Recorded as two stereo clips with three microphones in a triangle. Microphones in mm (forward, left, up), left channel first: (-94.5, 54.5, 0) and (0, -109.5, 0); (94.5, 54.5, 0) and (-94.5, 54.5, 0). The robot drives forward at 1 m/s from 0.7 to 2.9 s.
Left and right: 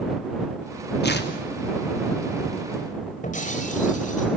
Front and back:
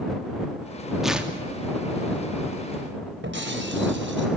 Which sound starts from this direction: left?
Tearing paper, at 1.0 s.